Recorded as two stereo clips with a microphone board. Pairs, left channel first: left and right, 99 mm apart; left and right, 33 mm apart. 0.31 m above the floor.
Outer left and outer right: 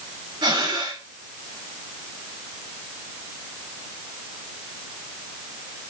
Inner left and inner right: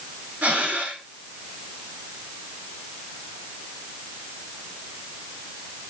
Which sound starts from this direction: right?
Breathing, at 0.4 s.